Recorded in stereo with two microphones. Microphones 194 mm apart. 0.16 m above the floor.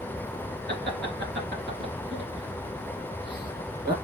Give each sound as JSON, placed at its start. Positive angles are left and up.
{"t": 0.7, "sound": "laughter", "side_deg": -60, "distance_m": 2.5}